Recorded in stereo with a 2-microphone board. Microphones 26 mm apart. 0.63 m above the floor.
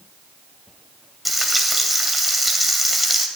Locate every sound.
1.2 s frying: 5° right (ahead or behind), 2 m